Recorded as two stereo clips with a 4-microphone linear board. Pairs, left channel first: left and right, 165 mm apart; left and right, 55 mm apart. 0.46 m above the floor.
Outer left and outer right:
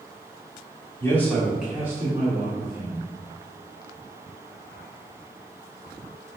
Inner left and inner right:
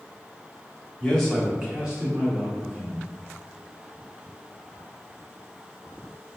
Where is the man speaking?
15° left (ahead or behind), 1.1 m; by 3.1 s 35° right (ahead or behind), 1.7 m.